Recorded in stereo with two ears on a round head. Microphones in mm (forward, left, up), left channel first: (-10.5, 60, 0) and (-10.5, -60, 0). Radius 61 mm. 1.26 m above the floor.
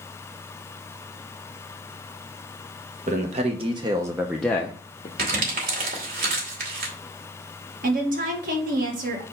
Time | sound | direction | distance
3.1 | a man speaking | 55° right (ahead or behind) | 1.3 m
5.2 | crumpling | 80° right | 2.5 m
7.8 | a woman speaking | 70° right (ahead or behind) | 1.8 m